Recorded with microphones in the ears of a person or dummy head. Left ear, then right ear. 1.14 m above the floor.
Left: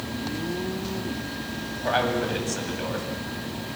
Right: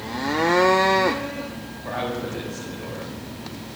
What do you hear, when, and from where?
1.8 s a man speaking: 80° left, 8.5 m